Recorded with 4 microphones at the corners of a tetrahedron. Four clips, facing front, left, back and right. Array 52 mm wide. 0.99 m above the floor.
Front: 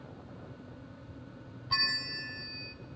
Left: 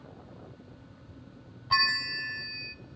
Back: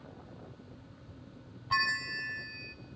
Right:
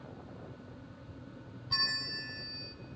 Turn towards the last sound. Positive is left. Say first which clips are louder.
# left 9 dB, back 3 dB
turn(degrees=110)